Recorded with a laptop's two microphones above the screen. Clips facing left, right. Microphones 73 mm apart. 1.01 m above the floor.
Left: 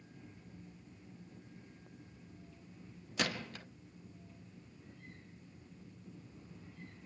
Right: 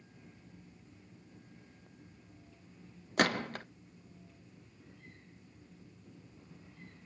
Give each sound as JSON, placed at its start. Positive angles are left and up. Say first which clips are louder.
{"t": 3.2, "sound": "a gunshot", "louder": "right 8 dB", "side_deg": -50, "distance_m": 0.6}